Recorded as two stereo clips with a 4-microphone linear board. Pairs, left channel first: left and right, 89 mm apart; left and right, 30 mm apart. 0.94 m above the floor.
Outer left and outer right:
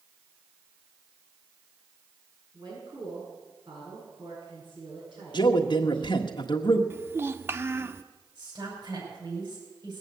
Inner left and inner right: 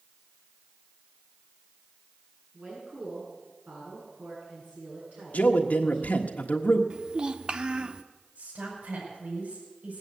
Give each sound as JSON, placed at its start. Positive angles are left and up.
{"t": 2.5, "sound": "a woman speaking", "side_deg": -60, "distance_m": 8.5}
{"t": 5.3, "sound": "a man speaking", "side_deg": 60, "distance_m": 1.4}
{"t": 6.9, "sound": "a child speaking", "side_deg": -30, "distance_m": 1.0}
{"t": 8.3, "sound": "a woman speaking", "side_deg": -60, "distance_m": 5.5}